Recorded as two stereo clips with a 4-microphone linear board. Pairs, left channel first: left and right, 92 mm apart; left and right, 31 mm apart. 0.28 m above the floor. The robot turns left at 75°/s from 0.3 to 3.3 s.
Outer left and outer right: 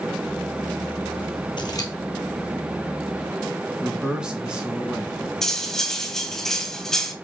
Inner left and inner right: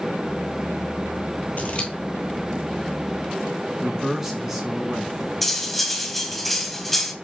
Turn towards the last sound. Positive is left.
turn(degrees=5)  # may be behind; listen again after turning